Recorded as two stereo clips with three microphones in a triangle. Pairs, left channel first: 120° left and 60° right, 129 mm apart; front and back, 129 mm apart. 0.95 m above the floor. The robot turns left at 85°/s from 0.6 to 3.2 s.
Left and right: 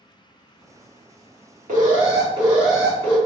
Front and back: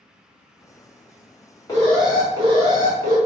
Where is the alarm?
65° right, 1.1 m; by 3.2 s 170° left, 1.1 m.